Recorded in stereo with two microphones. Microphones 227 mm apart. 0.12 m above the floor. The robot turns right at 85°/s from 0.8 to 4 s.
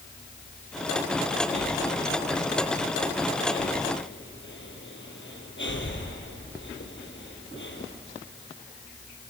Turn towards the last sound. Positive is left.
turn(degrees=55)  # may be behind; listen again after turning